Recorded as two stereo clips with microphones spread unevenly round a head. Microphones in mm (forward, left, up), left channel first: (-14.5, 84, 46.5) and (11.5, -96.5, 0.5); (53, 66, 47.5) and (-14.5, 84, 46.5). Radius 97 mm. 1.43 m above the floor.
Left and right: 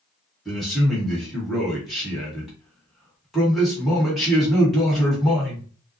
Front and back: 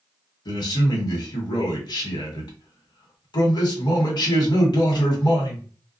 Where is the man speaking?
5° left, 1.5 m.